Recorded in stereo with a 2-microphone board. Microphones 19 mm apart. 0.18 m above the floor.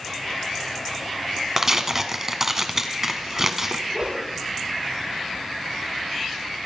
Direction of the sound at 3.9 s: 85° right.